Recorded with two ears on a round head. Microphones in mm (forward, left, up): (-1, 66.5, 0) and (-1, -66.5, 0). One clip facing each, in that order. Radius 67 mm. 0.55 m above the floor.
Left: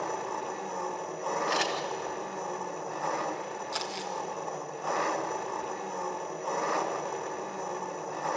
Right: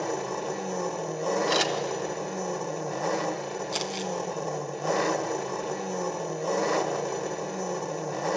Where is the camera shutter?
45° right (ahead or behind), 2.0 m.